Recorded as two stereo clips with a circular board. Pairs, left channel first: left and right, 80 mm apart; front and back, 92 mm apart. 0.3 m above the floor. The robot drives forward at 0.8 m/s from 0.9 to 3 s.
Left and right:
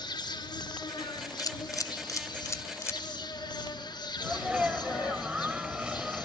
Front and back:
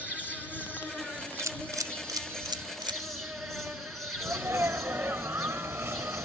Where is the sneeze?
155° right, 1.5 m.